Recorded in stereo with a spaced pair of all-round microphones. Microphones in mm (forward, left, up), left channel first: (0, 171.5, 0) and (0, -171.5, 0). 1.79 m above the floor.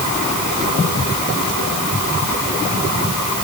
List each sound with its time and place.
Only background noise.